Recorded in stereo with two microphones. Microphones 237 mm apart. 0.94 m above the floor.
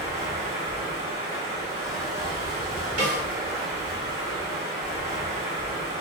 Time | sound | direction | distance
0.0 | running water | 25° right (ahead or behind) | 1.4 m
3.0 | a snare drum | 85° right | 1.3 m